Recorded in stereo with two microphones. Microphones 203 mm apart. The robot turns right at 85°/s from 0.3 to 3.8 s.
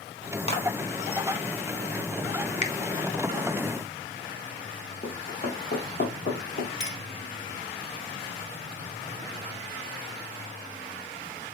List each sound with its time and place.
0.5 s a clap: 30° left (ahead or behind), 1.4 m; by 0.7 s 20° left (ahead or behind), 1.4 m
2.6 s a finger snap: 35° left (ahead or behind), 0.8 m; by 2.8 s 45° left (ahead or behind), 0.8 m
5.0 s running footsteps: 45° left (ahead or behind), 1.5 m; by 6.7 s 60° left (ahead or behind), 2.5 m
6.8 s a clink: 60° left (ahead or behind), 1.4 m